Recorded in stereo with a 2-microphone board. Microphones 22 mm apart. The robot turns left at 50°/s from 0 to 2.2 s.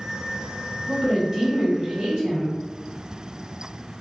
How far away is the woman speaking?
About 1.9 m.